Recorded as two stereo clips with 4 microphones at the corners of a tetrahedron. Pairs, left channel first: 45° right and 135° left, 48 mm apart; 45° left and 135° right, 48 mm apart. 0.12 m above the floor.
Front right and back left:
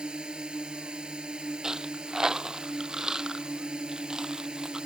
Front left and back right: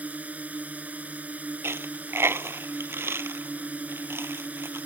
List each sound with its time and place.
0.0 s a drone: 165° right
1.6 s a dropped coin: 150° right